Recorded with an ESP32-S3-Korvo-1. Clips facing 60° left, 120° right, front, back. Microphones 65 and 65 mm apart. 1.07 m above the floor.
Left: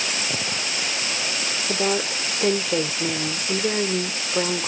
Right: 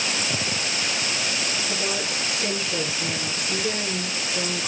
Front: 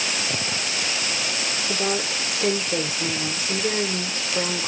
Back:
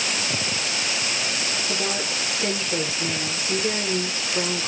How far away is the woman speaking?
About 0.9 m.